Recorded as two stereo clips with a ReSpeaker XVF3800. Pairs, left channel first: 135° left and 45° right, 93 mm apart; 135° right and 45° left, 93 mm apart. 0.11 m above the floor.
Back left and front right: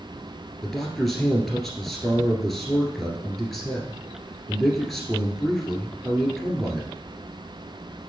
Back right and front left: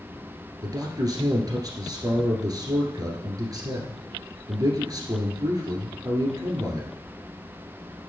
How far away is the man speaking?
About 1.9 m.